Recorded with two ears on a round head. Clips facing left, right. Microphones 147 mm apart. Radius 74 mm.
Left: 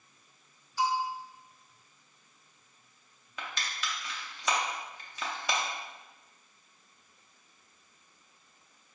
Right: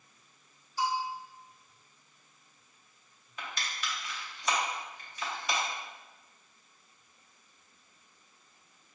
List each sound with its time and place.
0.8 s a bell: 55° left (ahead or behind), 0.6 m
3.4 s crushing: 65° left (ahead or behind), 0.7 m